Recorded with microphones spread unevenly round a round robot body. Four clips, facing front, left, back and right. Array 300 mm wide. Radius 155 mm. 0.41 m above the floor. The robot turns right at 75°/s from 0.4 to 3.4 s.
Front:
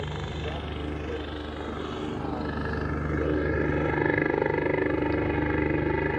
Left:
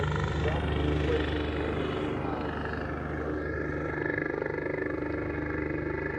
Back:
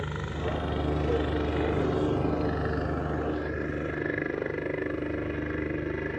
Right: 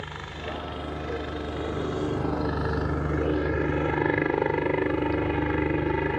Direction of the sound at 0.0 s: 85° left.